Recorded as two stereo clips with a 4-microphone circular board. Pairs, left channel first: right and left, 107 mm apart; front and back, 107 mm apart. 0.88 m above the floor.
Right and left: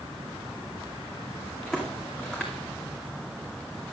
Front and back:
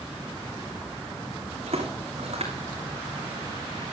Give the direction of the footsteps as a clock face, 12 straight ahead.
6 o'clock.